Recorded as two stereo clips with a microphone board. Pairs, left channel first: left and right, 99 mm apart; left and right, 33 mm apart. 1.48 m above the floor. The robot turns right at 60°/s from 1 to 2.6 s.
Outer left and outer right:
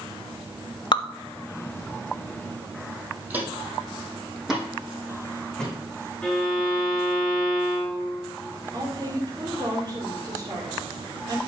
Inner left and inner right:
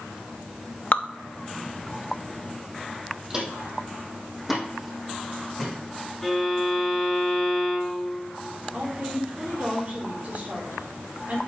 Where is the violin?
5° left (ahead or behind), 4 m.